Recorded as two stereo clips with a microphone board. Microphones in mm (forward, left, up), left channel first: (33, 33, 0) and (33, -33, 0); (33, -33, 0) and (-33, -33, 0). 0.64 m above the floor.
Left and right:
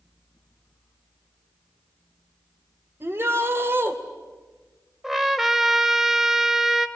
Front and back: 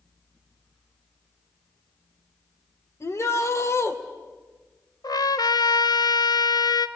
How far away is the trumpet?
About 1.1 m.